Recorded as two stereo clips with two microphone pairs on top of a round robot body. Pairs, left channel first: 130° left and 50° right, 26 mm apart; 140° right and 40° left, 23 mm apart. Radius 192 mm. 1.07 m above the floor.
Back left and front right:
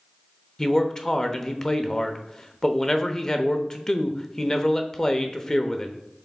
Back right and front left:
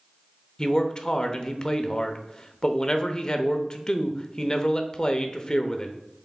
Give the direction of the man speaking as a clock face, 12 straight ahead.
6 o'clock.